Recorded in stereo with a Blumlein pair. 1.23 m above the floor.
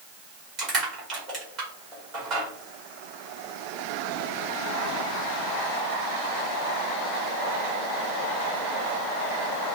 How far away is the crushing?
About 1.9 m.